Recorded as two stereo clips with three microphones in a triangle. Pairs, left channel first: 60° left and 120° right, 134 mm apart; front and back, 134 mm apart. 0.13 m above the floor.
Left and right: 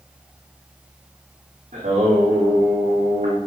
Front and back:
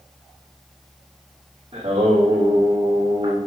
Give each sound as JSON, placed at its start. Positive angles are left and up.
{"t": 1.7, "sound": "singing", "azimuth_deg": -140, "distance_m": 6.0}